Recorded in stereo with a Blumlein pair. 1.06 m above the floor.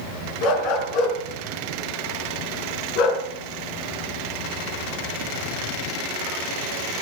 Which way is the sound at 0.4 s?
45° left.